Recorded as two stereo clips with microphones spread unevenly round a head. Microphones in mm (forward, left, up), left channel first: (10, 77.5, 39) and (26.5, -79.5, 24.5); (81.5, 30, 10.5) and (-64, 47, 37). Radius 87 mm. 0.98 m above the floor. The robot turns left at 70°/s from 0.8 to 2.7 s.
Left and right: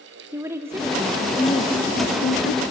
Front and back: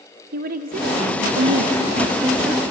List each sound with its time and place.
0.3 s a woman speaking: 155° right, 0.9 m; by 2.6 s 80° left, 0.9 m